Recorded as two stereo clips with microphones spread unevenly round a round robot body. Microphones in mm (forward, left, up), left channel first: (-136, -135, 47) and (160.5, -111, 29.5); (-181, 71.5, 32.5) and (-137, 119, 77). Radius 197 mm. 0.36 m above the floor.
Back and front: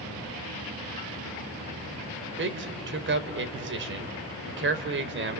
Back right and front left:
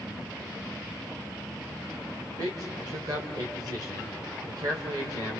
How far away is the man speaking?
About 1.6 m.